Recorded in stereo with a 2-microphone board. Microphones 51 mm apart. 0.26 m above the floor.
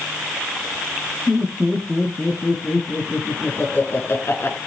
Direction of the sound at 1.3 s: 20° left (ahead or behind).